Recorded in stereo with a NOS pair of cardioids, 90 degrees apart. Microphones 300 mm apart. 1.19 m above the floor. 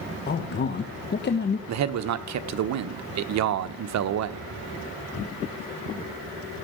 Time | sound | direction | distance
0.3 | a man speaking | 35° left | 1.2 m
1.7 | a man speaking | 65° right | 1.0 m